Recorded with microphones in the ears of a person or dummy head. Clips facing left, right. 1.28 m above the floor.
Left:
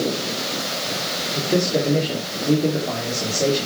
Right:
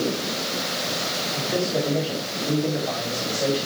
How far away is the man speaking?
About 4 m.